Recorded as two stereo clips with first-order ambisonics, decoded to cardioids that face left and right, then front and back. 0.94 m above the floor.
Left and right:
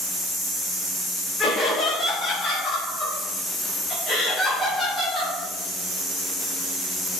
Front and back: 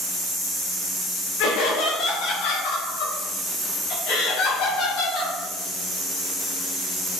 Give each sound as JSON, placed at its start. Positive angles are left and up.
{"t": 1.4, "sound": "laughter", "azimuth_deg": 20, "distance_m": 4.0}